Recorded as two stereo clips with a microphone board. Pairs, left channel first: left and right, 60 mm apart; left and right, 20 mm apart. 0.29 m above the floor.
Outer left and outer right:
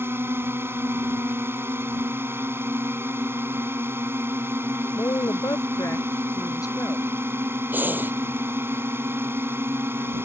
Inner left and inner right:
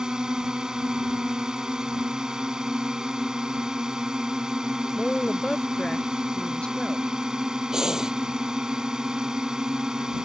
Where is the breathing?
30° right (ahead or behind).